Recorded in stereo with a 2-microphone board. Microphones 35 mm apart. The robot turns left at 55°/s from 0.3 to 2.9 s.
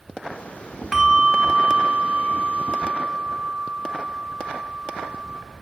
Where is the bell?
15° right, 0.7 m; by 5.4 s 125° right, 0.7 m.